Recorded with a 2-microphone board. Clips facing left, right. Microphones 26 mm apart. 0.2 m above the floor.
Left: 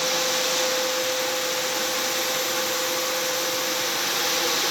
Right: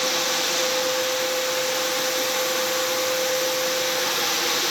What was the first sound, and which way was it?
Only background noise.